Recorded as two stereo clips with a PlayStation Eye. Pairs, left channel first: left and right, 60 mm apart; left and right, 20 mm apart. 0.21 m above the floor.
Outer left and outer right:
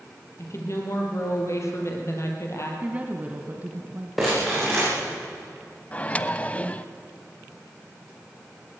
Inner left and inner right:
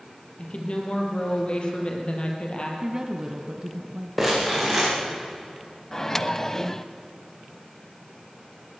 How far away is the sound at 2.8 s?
About 1.7 m.